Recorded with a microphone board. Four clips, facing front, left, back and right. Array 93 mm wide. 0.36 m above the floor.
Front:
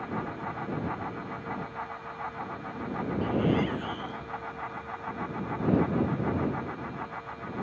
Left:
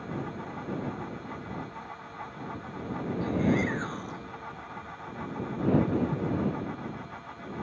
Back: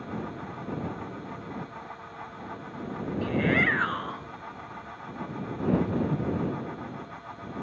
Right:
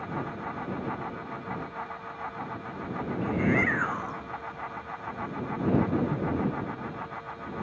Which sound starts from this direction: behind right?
A shout, at 3.2 s.